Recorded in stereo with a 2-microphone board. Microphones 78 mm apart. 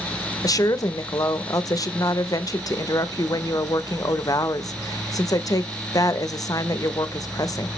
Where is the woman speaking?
50° left (ahead or behind), 0.6 m.